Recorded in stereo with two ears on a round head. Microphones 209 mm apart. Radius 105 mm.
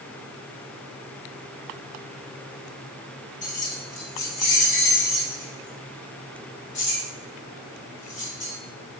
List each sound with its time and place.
3.4 s keys jangling: 35° left (ahead or behind), 3 m; by 8.5 s 60° left (ahead or behind), 5 m